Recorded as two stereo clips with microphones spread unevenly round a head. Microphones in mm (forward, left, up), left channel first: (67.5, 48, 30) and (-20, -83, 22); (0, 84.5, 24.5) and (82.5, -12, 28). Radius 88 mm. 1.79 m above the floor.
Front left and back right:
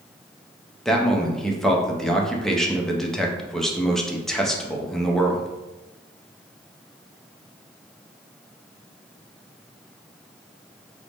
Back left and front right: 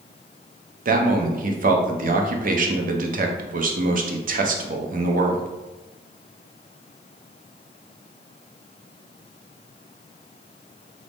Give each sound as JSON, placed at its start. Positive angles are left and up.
{"t": 0.8, "sound": "a man speaking", "azimuth_deg": -30, "distance_m": 0.6}